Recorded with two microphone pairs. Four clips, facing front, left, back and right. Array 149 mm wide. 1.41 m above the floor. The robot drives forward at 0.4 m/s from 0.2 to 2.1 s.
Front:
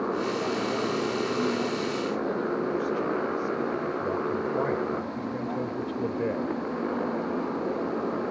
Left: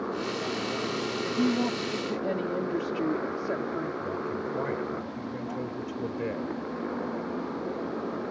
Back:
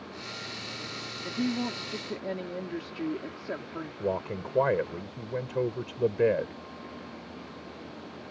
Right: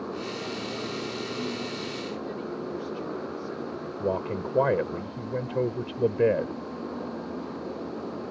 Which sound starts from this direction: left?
A woman speaking, at 1.2 s.